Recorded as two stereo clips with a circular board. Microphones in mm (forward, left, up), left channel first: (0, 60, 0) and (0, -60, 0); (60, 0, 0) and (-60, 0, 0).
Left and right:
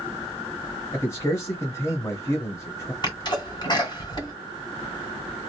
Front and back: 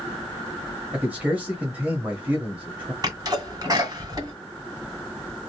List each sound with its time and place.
0.9 s a man speaking: 120° left, 1.2 m
3.0 s a sneeze: 130° left, 1.8 m